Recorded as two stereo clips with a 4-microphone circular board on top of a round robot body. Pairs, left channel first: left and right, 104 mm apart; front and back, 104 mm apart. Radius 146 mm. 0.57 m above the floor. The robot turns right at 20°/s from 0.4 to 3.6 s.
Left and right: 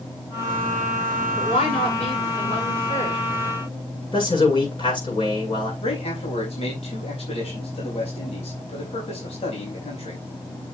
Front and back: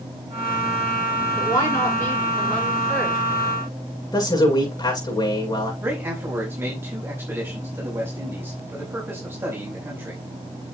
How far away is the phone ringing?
I don't hear a phone ringing.